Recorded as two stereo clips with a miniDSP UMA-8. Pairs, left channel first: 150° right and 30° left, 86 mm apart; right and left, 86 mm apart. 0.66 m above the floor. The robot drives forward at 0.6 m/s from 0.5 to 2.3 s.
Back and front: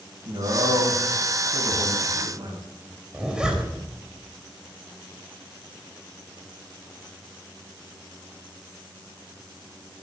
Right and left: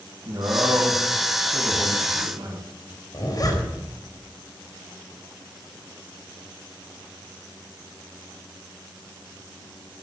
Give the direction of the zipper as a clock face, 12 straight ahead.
2 o'clock.